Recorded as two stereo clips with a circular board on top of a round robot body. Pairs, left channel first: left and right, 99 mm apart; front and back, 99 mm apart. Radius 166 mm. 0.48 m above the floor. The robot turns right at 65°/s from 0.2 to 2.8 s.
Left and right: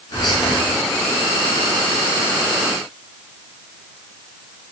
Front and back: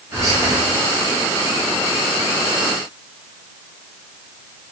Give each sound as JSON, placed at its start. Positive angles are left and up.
{"t": 0.1, "sound": "whispering", "azimuth_deg": 130, "distance_m": 1.1}